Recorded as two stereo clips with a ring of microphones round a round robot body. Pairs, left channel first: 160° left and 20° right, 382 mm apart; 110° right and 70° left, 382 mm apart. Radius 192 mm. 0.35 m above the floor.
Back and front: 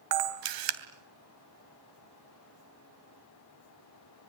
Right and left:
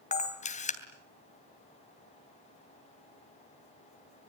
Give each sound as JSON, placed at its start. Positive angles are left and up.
{"t": 0.1, "sound": "a camera shutter", "azimuth_deg": -45, "distance_m": 3.0}